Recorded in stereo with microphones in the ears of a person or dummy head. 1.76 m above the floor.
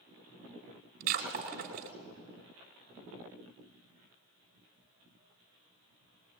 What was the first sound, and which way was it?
Breaking glass, 45° right (ahead or behind).